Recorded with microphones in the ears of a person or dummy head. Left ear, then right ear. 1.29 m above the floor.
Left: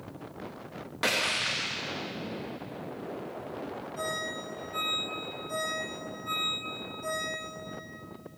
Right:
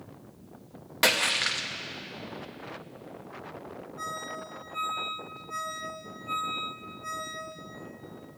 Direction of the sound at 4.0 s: 85° left.